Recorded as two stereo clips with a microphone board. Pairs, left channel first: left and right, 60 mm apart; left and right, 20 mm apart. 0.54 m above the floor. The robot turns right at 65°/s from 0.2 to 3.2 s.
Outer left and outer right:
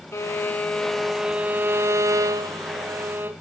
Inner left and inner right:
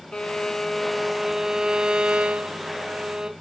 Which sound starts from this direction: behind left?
A violin, at 0.1 s.